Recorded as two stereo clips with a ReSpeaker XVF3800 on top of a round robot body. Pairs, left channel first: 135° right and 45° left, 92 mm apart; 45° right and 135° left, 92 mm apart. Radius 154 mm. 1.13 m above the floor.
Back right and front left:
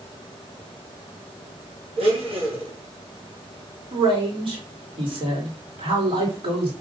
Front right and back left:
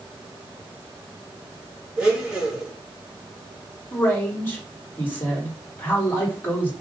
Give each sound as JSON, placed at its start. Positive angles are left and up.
{"t": 2.0, "sound": "a blender", "azimuth_deg": 55, "distance_m": 3.0}
{"t": 3.9, "sound": "a man speaking", "azimuth_deg": 25, "distance_m": 4.0}